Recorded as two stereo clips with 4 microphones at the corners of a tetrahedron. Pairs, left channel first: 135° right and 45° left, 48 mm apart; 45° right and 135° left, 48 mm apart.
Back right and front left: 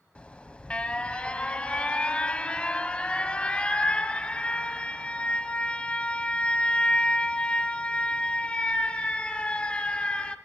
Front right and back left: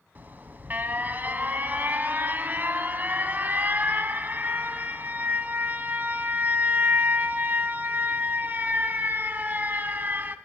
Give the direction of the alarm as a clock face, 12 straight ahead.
6 o'clock.